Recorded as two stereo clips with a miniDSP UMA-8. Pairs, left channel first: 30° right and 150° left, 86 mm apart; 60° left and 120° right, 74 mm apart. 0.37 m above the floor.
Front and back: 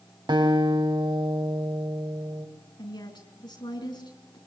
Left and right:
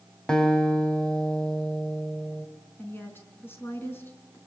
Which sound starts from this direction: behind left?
A guitar, at 0.3 s.